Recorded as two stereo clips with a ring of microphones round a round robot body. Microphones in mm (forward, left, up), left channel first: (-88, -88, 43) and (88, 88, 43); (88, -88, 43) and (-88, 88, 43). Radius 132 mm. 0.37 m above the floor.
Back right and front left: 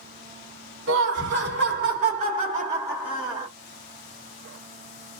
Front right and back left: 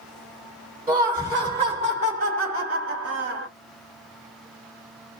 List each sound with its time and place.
0.9 s laughter: 55° left, 1.5 m; by 3.5 s 140° left, 1.5 m